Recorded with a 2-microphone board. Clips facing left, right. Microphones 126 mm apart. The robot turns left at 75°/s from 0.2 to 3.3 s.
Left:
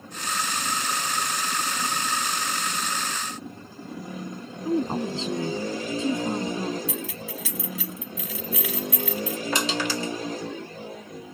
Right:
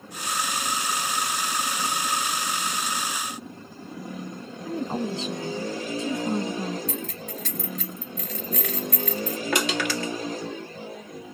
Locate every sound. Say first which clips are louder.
4.7 s a woman speaking: left 3 dB; 25° left (ahead or behind), 1.2 m
6.9 s keys jangling: even; 5° left (ahead or behind), 0.7 m
9.5 s crushing: right 2 dB; 60° right (ahead or behind), 1.7 m